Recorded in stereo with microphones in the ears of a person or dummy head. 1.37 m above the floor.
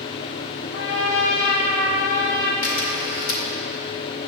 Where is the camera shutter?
70° left (ahead or behind), 2 m.